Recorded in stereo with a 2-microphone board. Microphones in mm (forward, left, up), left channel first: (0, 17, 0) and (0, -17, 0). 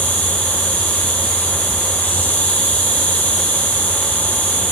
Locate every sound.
0.0 s an insect: 60° left (ahead or behind), 1.0 m